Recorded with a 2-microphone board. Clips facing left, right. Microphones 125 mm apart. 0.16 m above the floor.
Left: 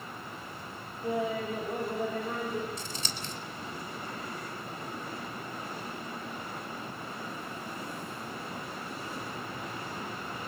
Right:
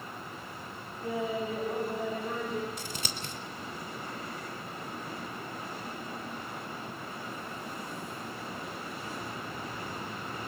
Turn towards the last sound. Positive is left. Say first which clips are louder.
# even
turn(degrees=-55)  # may be behind; listen again after turning